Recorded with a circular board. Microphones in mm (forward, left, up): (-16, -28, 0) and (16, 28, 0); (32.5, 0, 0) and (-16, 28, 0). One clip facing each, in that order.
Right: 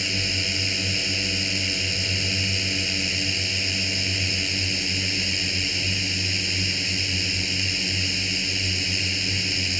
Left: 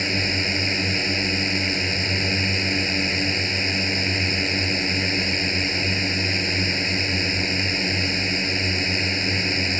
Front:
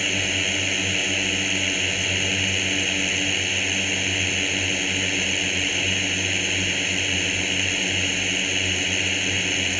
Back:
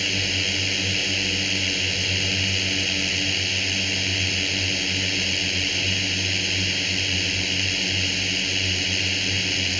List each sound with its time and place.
0.0 s a drone: 40° left